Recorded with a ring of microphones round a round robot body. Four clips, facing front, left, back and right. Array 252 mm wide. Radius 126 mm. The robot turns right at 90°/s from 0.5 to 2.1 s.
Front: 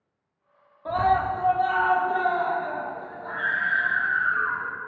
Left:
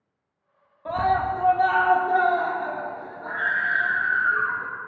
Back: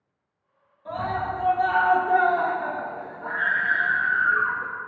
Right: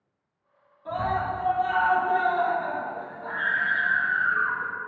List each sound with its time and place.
0.8 s a scream: 45° left, 0.9 m; by 4.7 s 160° left, 0.9 m